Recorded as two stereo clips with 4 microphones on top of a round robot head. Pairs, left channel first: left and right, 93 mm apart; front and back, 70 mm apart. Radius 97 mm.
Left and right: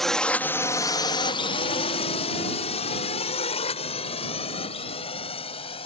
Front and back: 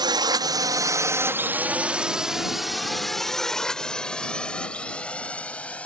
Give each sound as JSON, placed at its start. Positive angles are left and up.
{"t": 0.0, "sound": "a drone", "azimuth_deg": 180}